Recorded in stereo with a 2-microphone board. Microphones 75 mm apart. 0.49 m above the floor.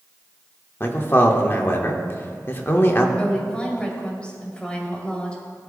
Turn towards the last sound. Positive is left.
turn(degrees=15)  # may be behind; listen again after turning